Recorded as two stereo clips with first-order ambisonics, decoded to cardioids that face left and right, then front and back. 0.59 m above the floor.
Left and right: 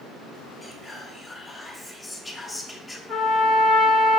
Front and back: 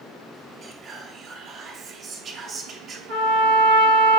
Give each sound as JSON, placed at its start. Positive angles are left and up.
{"t": 0.6, "sound": "whispering", "azimuth_deg": 165, "distance_m": 0.6}
{"t": 3.1, "sound": "a trumpet", "azimuth_deg": 170, "distance_m": 1.2}